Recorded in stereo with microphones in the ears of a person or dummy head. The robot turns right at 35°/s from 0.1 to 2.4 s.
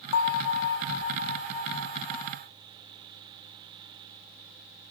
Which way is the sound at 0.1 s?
90° left.